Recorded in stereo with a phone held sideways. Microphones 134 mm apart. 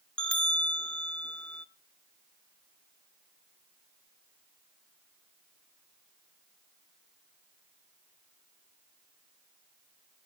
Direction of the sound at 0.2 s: 10° left (ahead or behind).